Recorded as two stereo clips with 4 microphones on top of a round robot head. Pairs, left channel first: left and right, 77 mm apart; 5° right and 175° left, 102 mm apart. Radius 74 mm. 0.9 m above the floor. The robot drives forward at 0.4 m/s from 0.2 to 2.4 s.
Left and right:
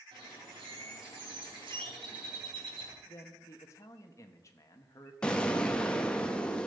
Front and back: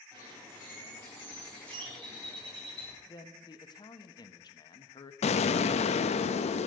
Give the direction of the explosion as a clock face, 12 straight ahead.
12 o'clock.